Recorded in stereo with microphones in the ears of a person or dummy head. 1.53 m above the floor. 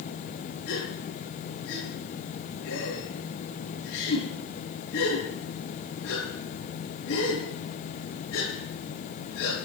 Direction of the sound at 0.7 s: 75° left (ahead or behind).